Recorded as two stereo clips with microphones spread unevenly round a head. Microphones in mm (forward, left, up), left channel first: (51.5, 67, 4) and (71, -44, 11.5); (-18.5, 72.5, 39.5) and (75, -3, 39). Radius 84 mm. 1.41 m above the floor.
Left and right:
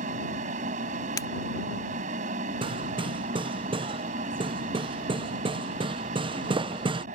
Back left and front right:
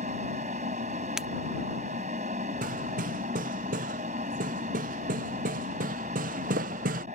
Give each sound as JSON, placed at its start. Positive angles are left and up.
{"t": 0.0, "sound": "a fan", "azimuth_deg": -90}
{"t": 1.2, "sound": "breaking glass", "azimuth_deg": 45}
{"t": 2.6, "sound": "hammering", "azimuth_deg": -35}